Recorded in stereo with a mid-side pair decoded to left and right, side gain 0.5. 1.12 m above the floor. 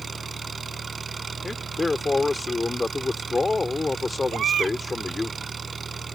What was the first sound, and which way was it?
An engine running, 30° right.